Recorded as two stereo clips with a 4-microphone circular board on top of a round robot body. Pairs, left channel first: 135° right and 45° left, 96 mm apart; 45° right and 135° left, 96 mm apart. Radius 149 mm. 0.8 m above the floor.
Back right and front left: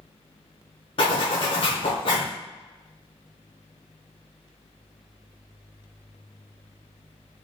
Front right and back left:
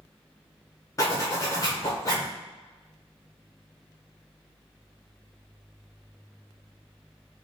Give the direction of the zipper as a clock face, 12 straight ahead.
3 o'clock.